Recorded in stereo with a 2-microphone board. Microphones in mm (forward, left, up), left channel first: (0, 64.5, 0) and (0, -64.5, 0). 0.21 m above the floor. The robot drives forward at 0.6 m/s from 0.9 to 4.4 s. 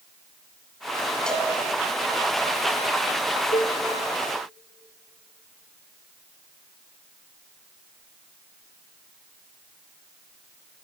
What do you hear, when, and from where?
1.3 s a cowbell: 5° left (ahead or behind), 2.5 m
3.5 s a cowbell: 65° left (ahead or behind), 2.0 m